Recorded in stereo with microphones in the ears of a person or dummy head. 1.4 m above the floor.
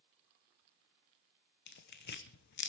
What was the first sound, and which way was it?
Tearing paper, 55° left (ahead or behind).